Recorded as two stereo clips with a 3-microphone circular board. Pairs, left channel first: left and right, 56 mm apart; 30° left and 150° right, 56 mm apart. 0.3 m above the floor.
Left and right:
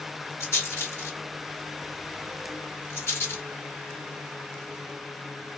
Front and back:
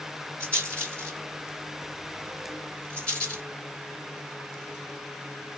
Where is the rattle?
95° left, 2 m.